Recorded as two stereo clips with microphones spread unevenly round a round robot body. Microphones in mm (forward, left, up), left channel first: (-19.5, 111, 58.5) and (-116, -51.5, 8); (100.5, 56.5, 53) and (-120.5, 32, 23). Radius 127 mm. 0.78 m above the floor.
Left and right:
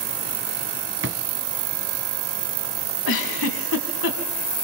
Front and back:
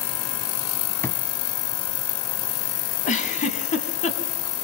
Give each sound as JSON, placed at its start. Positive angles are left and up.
{"t": 1.0, "sound": "a drawer", "azimuth_deg": -70, "distance_m": 1.8}
{"t": 3.0, "sound": "a giggle", "azimuth_deg": 65, "distance_m": 5.0}